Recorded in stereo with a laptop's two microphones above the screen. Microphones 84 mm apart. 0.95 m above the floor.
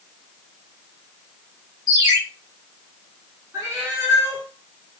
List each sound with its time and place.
1.9 s a ringtone: 40° right (ahead or behind), 3.5 m
3.5 s a cat meowing: 35° right (ahead or behind), 4.5 m